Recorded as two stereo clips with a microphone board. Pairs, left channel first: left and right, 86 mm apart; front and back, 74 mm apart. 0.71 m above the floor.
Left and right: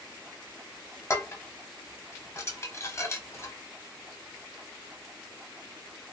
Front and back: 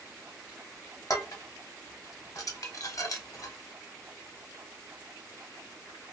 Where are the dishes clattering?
35° left, 0.9 m.